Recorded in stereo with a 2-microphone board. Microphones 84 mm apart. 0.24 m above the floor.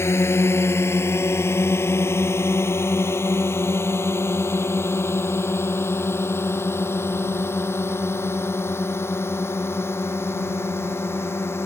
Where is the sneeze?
No sneeze in this recording.